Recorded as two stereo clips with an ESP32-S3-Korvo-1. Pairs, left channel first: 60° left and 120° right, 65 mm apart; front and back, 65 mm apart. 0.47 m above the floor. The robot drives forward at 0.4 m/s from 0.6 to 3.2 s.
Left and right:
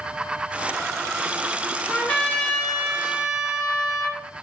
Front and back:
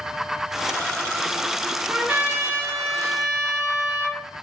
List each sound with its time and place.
1.9 s a trumpet: 120° left, 0.6 m; by 4.2 s 150° left, 1.0 m